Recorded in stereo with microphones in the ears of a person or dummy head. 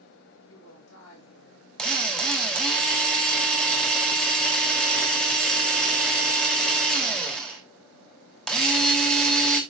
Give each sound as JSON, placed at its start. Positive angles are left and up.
{"t": 0.5, "sound": "a woman speaking", "side_deg": 85, "distance_m": 7.0}
{"t": 1.8, "sound": "a drill", "side_deg": 5, "distance_m": 2.5}